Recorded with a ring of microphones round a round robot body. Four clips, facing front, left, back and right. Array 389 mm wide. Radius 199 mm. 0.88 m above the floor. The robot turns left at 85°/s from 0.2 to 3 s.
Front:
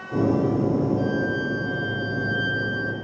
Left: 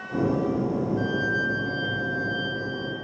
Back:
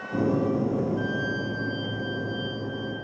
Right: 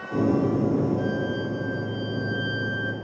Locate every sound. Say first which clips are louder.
1.0 s a violin: even, front 5 dB; 125° left, 1.6 m; by 2.9 s 40° right, 1.6 m